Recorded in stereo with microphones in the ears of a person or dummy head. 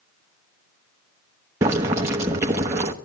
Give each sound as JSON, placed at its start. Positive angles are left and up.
{"t": 1.6, "sound": "boiling", "side_deg": -15, "distance_m": 0.8}